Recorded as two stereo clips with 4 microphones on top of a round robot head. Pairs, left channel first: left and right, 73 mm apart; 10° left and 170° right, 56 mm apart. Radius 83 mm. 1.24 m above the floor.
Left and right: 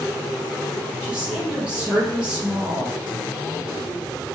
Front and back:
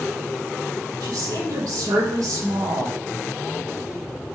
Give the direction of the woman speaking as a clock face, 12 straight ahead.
6 o'clock.